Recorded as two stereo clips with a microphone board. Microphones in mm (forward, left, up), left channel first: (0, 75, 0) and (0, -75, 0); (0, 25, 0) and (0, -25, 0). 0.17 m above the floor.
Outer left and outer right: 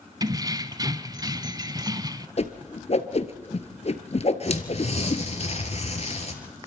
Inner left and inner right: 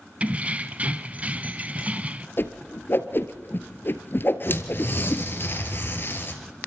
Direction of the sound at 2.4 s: 50° left (ahead or behind).